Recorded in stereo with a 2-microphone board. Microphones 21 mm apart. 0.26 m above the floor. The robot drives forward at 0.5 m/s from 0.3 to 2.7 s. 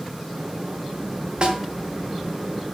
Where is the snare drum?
50° right (ahead or behind), 2 m.